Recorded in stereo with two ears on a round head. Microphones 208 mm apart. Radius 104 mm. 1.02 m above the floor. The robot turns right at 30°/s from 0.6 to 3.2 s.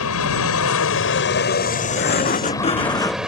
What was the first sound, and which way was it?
An aircraft, 105° left.